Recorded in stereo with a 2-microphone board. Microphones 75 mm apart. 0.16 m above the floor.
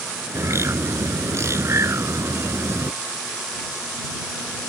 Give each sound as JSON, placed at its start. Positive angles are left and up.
{"t": 0.3, "sound": "a bird", "side_deg": -40}